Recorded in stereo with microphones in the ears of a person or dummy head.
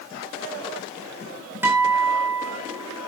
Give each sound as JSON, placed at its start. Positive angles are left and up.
{"t": 1.6, "sound": "a guitar", "side_deg": -15, "distance_m": 7.5}